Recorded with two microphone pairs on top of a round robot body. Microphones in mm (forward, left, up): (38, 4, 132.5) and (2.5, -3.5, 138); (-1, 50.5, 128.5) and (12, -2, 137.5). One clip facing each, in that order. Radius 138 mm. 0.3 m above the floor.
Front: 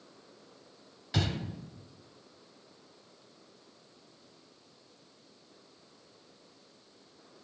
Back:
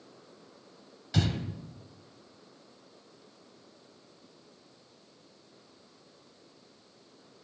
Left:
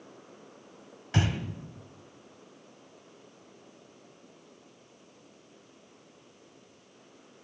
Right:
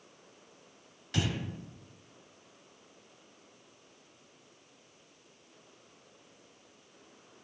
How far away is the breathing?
About 1.4 m.